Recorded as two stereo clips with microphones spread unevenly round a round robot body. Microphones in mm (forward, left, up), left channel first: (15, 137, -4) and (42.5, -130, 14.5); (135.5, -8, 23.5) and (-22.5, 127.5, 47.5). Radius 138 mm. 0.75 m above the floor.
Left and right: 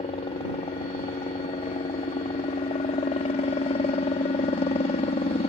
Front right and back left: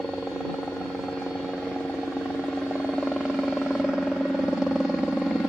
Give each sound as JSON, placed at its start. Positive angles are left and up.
{"t": 0.0, "sound": "a helicopter", "azimuth_deg": 45}